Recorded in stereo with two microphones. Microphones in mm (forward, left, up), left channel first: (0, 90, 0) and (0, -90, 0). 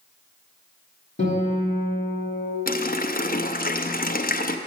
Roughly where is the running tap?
Left.